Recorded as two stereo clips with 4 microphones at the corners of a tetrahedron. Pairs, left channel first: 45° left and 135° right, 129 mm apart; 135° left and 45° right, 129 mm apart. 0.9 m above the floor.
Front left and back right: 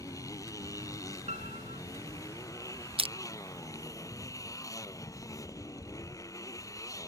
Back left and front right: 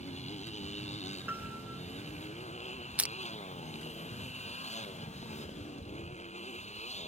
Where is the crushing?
120° right.